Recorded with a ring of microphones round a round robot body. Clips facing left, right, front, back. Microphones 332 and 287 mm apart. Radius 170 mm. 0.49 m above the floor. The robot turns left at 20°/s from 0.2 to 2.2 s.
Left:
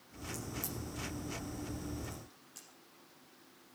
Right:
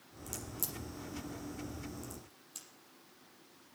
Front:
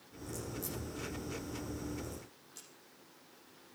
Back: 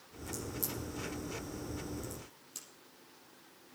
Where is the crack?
100° right, 5.5 m; by 2.7 s 140° right, 5.5 m.